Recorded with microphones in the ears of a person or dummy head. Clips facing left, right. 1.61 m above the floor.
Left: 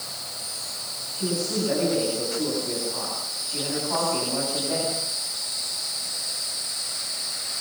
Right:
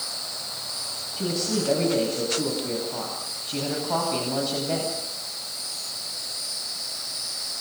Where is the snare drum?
No snare drum in this recording.